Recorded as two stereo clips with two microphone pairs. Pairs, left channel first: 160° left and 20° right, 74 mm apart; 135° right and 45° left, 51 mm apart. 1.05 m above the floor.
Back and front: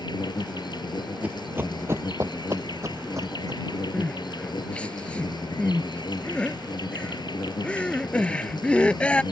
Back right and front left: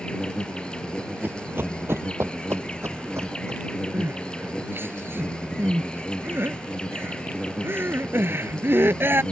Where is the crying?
85° left.